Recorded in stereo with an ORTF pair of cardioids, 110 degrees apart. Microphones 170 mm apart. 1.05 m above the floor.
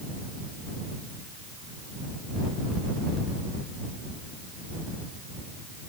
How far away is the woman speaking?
No woman speaking in this recording.